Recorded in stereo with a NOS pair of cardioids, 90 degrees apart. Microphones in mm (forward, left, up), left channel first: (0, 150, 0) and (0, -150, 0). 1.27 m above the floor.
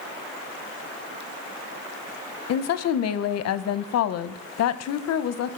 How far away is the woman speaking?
About 0.7 m.